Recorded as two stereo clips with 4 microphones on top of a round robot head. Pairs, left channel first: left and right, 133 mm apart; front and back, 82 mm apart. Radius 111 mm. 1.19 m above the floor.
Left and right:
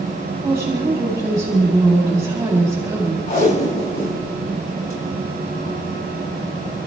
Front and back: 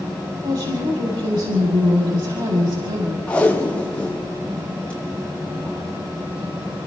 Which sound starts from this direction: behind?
A woman speaking, at 0.4 s.